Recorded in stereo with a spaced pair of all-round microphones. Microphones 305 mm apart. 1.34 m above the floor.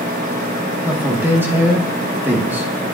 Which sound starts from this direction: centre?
A man speaking, at 0.8 s.